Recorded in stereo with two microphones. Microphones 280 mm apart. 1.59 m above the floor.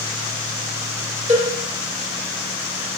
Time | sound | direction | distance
1.3 | a cowbell | 25° right (ahead or behind) | 3 m